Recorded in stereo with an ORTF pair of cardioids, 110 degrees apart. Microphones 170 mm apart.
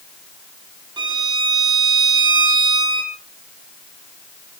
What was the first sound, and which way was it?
A violin, 30° right.